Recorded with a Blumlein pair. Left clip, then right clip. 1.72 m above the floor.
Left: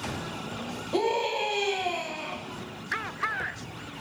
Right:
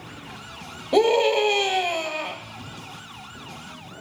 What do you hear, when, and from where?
0.9 s a scream: 40° right, 1.3 m